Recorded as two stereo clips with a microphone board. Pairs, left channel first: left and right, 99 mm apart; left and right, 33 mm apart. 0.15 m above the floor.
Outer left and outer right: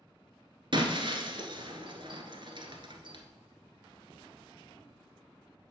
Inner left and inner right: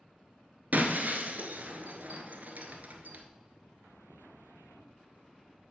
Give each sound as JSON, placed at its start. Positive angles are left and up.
{"t": 0.7, "sound": "breaking glass", "side_deg": -60, "distance_m": 1.1}